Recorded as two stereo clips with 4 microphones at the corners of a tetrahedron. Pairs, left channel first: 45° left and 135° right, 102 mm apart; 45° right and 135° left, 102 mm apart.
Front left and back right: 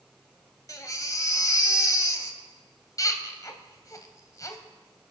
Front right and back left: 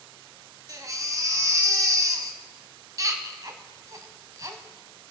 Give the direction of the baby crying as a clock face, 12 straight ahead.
9 o'clock.